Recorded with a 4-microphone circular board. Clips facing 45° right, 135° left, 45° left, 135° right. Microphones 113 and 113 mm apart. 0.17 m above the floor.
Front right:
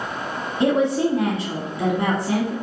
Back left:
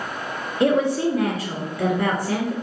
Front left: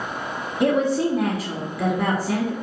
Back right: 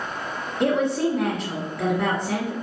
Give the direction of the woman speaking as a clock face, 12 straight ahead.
1 o'clock.